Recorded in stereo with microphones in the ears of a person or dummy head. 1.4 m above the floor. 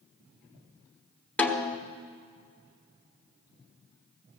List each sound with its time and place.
1.4 s a snare drum: 5° left (ahead or behind), 1.2 m